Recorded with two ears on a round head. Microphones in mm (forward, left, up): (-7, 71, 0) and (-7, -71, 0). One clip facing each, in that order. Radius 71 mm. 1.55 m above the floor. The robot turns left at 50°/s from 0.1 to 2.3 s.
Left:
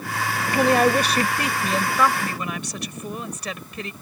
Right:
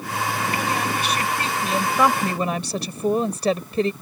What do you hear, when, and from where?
0.5 s a woman speaking: 60° left; by 3.9 s 30° right